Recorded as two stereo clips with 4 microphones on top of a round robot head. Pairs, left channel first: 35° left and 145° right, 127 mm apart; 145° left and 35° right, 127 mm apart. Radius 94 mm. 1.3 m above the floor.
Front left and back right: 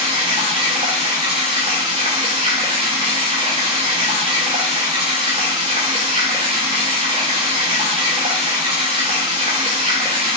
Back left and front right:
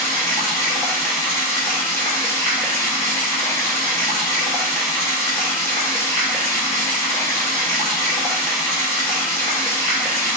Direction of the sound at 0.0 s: 155° right.